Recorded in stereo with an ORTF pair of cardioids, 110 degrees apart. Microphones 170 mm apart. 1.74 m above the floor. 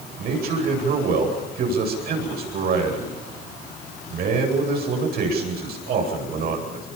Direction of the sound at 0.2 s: 65° right.